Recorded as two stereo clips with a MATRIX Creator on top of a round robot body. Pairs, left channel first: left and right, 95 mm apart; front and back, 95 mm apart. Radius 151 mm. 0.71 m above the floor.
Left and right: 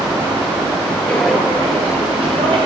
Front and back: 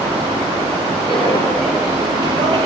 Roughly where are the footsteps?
Ahead.